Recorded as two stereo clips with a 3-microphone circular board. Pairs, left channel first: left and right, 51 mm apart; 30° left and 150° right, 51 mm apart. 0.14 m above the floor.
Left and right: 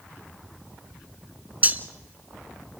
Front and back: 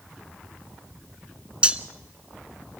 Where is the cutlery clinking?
105° right, 0.9 m.